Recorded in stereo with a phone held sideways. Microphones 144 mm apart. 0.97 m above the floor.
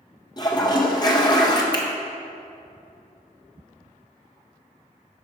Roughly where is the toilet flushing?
Left.